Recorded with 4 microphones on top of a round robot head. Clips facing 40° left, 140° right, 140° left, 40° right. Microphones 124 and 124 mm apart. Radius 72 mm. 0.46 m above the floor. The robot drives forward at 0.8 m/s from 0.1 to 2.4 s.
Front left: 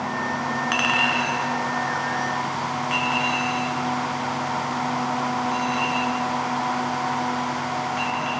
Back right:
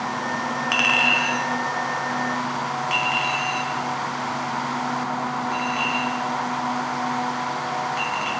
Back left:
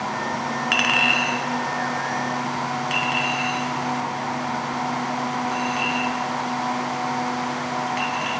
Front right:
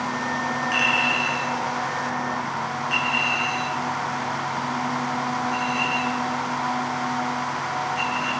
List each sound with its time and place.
0.7 s a clink: 140° left, 1.0 m; by 8.3 s 165° left, 2 m